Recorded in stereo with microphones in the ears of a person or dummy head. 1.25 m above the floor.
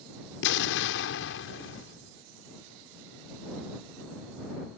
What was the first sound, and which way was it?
An explosion, 60° left (ahead or behind).